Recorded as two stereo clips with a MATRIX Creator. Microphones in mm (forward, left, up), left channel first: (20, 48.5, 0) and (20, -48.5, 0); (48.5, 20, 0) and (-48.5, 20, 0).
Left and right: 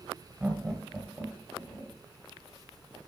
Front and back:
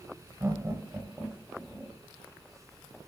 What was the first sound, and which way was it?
Laughter, 150° right.